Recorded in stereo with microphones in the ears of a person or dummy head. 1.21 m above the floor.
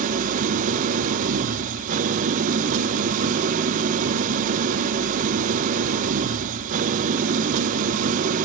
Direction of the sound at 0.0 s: 40° right (ahead or behind).